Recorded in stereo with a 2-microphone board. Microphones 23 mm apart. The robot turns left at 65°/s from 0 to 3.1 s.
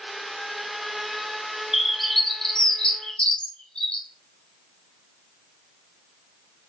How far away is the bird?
About 0.5 m.